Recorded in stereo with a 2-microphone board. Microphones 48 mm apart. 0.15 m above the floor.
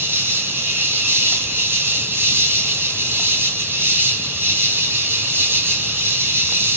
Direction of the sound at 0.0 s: 55° right (ahead or behind).